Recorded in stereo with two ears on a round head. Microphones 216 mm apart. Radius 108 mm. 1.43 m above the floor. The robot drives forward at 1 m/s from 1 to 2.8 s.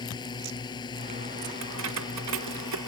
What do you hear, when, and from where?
0.0 s a drone: 20° left (ahead or behind)
1.6 s keys jangling: 70° right (ahead or behind); by 2.9 s 85° right